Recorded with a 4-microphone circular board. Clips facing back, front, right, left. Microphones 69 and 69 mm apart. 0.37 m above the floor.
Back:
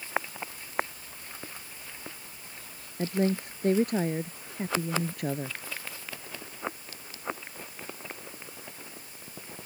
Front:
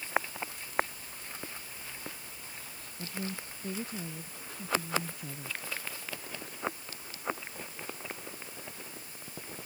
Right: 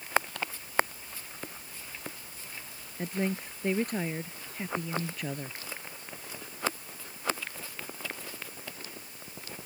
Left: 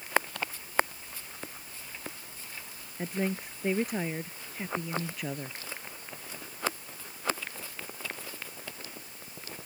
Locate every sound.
3.0 s a woman speaking: 175° left